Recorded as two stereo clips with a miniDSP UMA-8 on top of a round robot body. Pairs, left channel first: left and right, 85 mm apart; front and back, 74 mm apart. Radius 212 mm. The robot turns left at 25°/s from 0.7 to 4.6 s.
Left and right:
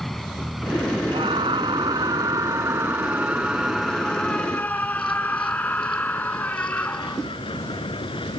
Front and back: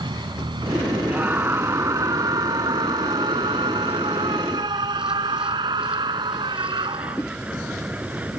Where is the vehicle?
Straight behind; by 8.4 s 110° left.